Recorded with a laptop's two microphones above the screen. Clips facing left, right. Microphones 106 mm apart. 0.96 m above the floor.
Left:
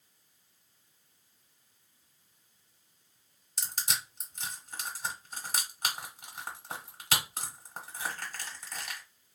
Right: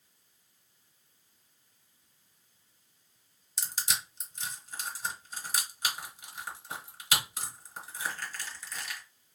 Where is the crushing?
50° left (ahead or behind), 1.0 m.